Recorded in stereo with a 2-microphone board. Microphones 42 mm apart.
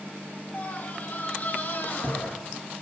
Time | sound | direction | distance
0.5 | a scream | 45° left (ahead or behind) | 3.5 m